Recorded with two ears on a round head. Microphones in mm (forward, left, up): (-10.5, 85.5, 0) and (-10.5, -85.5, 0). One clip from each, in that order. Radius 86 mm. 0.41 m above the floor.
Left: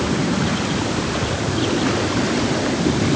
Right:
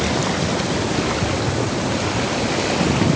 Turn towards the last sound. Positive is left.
No sound to turn to.